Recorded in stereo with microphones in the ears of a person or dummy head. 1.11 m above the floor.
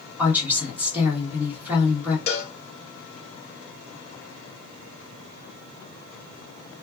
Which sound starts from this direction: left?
A cowbell, at 2.3 s.